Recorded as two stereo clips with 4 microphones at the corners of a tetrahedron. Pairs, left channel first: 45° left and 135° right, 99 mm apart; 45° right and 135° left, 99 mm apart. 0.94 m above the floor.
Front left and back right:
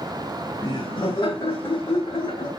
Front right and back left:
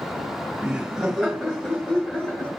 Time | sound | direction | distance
0.6 | laughter | 65° left | 1.3 m